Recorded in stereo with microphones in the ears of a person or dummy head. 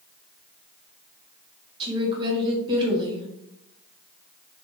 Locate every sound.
1.8 s a woman speaking: 25° right (ahead or behind), 1.1 m